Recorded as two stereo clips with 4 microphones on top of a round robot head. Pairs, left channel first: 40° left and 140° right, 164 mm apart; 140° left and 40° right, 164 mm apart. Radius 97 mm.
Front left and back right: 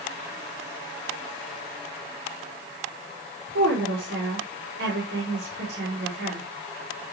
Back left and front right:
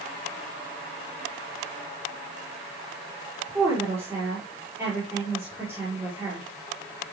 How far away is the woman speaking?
About 5.5 m.